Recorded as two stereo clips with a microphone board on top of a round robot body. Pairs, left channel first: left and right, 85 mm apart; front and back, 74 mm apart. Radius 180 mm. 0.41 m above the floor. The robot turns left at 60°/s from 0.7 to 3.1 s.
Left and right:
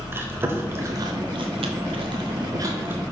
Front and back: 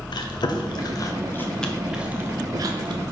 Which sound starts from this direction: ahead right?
Chewing, at 0.1 s.